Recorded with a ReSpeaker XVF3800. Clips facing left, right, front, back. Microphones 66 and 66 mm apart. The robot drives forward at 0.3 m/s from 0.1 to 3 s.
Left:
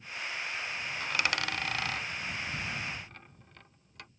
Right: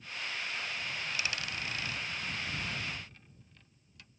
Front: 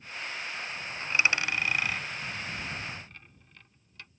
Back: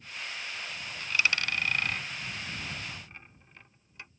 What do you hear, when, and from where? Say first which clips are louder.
1.0 s a dropped coin: left 9 dB, front 2 dB; 60° left; by 4.1 s 110° left